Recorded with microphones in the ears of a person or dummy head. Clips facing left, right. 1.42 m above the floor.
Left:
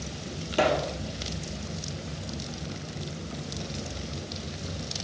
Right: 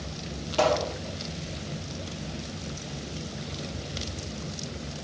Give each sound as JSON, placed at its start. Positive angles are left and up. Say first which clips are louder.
{"t": 0.5, "sound": "a pop", "louder": "right 1 dB", "side_deg": 25, "distance_m": 2.0}